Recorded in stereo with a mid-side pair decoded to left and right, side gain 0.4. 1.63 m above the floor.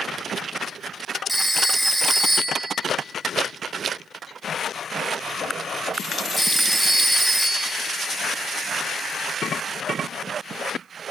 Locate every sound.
1.3 s a phone ringing: 5° right, 1.6 m